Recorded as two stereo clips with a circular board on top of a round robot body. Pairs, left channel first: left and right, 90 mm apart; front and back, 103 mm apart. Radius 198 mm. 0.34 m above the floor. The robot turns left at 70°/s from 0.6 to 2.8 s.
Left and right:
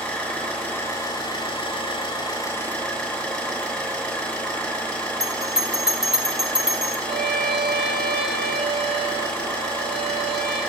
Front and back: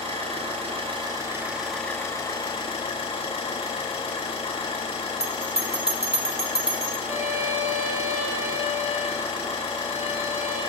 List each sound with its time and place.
0.0 s an engine running: 165° left, 8 m; by 10.7 s 15° left, 8 m
5.2 s a bell: 175° right, 2.5 m
7.0 s a violin: 115° right, 6.5 m